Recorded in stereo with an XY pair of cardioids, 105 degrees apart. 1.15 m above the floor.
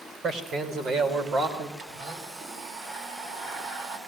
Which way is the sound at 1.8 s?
65° right.